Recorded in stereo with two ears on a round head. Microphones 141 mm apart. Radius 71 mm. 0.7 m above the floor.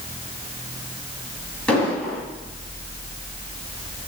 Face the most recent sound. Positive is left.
turn(degrees=5)  # may be behind; listen again after turning